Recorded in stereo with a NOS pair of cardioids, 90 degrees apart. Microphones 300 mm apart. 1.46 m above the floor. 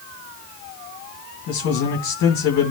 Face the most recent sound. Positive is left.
turn(degrees=70)